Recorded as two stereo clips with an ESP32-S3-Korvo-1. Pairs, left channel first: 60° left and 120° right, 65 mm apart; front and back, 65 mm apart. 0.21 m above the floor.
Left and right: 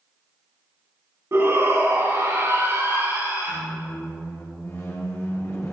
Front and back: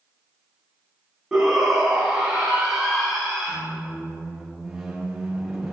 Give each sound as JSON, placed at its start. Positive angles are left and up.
{"t": 1.3, "sound": "a shout", "azimuth_deg": -105, "distance_m": 2.0}
{"t": 3.5, "sound": "a squeak", "azimuth_deg": 95, "distance_m": 3.0}